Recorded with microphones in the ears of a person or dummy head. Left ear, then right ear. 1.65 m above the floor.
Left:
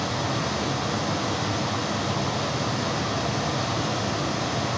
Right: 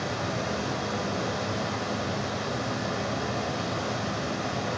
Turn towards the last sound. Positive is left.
turn(degrees=-40)  # may be behind; listen again after turning